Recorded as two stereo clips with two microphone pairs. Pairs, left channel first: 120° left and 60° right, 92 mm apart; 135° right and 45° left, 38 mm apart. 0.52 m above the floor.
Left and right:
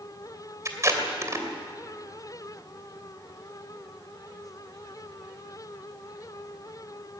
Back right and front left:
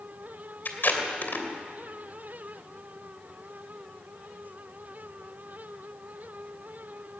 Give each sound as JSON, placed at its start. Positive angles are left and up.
{"t": 0.7, "sound": "tape being pulled", "azimuth_deg": -110, "distance_m": 2.5}